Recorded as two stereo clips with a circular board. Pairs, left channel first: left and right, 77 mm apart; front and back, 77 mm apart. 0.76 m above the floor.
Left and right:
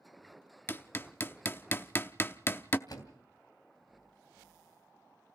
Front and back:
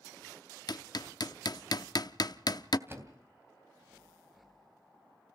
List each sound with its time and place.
0.7 s hammering: 30° left, 0.6 m
2.9 s a door slam: 120° left, 3 m